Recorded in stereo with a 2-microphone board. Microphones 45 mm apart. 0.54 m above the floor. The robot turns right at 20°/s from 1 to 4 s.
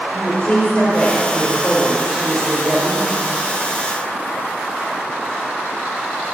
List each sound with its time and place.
0.1 s a woman speaking: 155° left, 2.5 m; by 3.2 s 165° right, 2.5 m